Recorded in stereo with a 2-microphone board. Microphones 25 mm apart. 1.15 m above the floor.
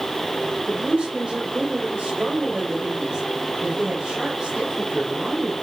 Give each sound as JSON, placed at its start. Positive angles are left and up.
{"t": 0.7, "sound": "a woman speaking", "side_deg": -50, "distance_m": 1.3}